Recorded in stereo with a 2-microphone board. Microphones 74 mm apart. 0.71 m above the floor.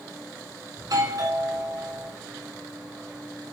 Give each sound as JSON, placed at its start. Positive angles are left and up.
{"t": 0.8, "sound": "a doorbell", "side_deg": -55, "distance_m": 3.0}